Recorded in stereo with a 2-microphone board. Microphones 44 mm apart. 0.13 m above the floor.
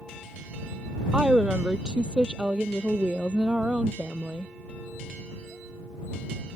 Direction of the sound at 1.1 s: 20° right (ahead or behind).